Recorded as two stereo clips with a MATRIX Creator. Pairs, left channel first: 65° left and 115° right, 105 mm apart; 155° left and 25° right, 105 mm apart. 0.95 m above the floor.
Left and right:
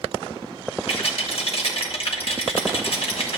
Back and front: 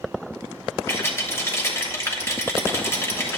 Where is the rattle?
90° left, 1.2 m.